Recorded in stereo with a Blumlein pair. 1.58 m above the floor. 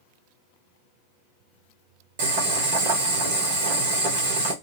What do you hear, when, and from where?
2.2 s boiling: 50° right, 1.0 m